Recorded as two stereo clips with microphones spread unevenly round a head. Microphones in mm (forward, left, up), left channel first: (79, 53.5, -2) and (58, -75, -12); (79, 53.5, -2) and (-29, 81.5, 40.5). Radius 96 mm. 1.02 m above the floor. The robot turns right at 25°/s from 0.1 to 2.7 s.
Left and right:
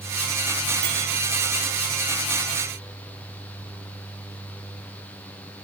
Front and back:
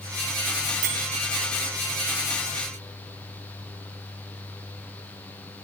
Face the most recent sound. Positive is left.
turn(degrees=-110)